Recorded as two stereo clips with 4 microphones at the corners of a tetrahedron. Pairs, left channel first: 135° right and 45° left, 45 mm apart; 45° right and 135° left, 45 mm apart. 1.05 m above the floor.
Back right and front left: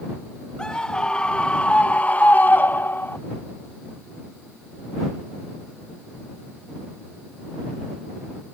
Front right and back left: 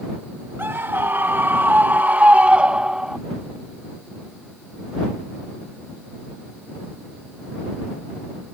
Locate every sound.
0.6 s a scream: 155° left; by 3.2 s 145° right